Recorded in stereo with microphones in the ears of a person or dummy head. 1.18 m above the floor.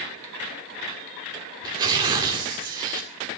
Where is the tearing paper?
25° right (ahead or behind), 1.9 m.